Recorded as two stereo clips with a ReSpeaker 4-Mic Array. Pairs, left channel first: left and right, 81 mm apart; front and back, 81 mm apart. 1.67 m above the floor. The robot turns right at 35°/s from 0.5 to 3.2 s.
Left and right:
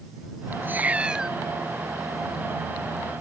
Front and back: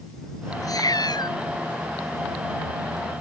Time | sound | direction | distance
0.6 | a cat meowing | 30° right | ?